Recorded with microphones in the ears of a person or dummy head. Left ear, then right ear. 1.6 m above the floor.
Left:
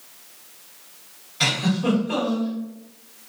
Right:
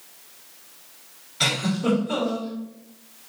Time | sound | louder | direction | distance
1.4 | a giggle | left 1 dB | 5° right (ahead or behind) | 2.0 m